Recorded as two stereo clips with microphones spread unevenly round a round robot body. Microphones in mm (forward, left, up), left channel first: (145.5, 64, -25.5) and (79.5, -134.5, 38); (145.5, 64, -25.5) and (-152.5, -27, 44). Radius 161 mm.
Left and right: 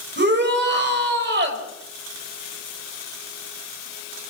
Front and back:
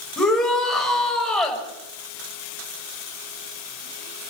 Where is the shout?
70° right, 6 m.